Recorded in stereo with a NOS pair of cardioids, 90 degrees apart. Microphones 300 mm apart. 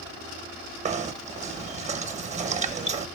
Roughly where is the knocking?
Ahead right.